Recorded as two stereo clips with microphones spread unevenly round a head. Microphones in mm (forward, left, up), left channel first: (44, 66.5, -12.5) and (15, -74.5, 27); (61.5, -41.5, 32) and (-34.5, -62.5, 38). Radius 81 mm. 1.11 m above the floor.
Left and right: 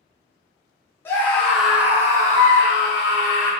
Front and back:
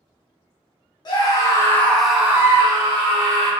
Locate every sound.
1.1 s a scream: 20° left, 0.9 m; by 3.5 s 150° right, 1.1 m